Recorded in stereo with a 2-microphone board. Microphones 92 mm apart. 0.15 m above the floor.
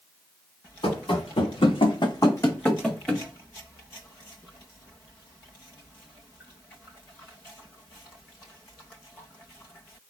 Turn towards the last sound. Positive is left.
turn(degrees=0)  # may be behind; listen again after turning